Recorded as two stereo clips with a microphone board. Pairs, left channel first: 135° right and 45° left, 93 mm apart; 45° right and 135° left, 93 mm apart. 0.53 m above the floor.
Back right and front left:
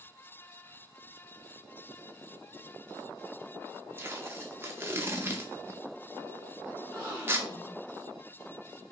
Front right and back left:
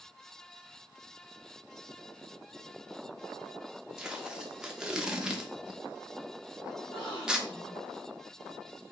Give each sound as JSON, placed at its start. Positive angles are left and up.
{"t": 4.0, "sound": "tape being pulled", "azimuth_deg": 65, "distance_m": 0.6}
{"t": 6.8, "sound": "a gasp", "azimuth_deg": -70, "distance_m": 2.5}